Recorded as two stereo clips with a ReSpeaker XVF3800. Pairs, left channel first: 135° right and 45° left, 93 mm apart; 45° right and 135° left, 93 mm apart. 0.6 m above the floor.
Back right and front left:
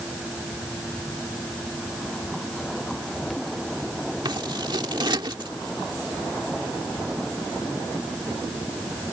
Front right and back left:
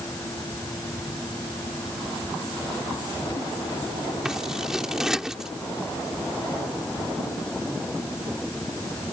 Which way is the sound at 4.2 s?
50° left.